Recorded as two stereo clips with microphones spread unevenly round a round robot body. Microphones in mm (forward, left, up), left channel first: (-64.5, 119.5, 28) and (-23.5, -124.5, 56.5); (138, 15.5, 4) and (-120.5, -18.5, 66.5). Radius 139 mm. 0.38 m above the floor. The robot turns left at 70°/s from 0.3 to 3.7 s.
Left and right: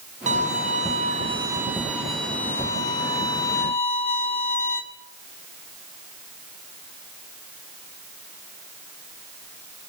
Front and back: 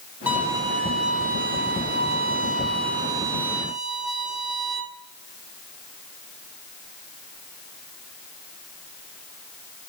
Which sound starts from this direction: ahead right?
A violin, at 0.3 s.